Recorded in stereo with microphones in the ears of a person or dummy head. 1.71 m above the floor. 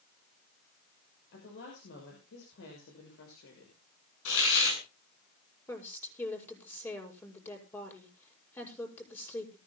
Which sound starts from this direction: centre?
A woman speaking, at 5.7 s.